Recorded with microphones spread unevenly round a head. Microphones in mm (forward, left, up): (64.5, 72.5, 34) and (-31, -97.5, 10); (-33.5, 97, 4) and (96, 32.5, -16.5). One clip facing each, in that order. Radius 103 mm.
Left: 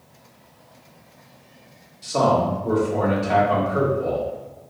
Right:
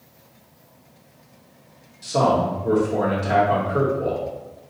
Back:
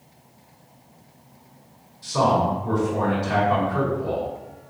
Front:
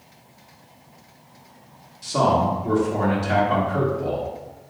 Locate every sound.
2.0 s a man speaking: 50° right, 1.8 m